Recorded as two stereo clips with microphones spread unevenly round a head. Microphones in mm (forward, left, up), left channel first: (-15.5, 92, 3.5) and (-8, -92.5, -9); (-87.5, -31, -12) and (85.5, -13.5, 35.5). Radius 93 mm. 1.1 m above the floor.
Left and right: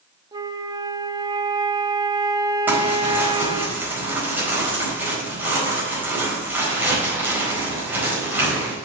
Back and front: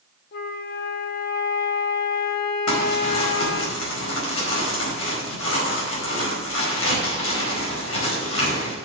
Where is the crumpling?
170° right, 4.5 m.